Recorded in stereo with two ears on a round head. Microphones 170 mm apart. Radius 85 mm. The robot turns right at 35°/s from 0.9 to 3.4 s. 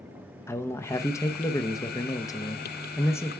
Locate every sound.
0.5 s a man speaking: 15° left (ahead or behind), 0.5 m